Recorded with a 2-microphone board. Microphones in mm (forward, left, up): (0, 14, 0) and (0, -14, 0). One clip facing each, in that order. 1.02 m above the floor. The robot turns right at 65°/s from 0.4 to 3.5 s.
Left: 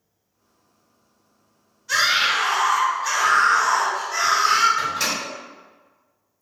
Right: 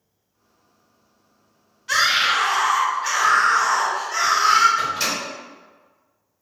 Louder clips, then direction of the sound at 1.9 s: Right 1 dB; 115° right.